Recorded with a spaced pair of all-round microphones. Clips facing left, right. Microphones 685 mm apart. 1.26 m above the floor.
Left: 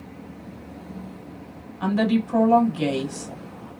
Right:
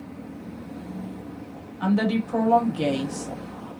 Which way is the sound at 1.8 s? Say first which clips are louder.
Left 1 dB; 5° left (ahead or behind).